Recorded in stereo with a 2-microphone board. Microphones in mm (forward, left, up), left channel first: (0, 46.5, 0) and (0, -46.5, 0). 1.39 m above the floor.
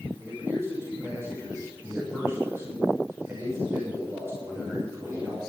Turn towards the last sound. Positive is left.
turn(degrees=-30)  # may be behind; listen again after turning